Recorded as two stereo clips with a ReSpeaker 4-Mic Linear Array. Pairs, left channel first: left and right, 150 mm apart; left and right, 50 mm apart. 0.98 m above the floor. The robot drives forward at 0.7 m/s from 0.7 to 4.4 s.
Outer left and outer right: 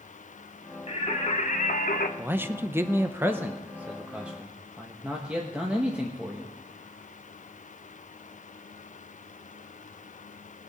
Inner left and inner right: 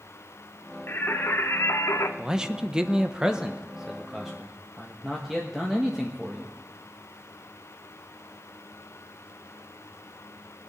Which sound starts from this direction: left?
Singing, at 0.9 s.